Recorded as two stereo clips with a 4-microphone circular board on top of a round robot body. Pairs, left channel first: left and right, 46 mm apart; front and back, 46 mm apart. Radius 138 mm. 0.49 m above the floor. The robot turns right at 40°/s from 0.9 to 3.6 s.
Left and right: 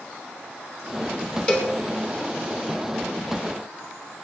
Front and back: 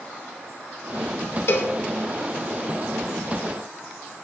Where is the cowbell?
30° left, 2.5 m; by 1.7 s 40° left, 2.5 m.